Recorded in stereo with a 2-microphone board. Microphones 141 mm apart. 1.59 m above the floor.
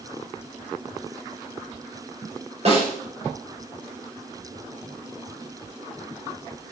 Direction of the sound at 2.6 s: 50° right (ahead or behind).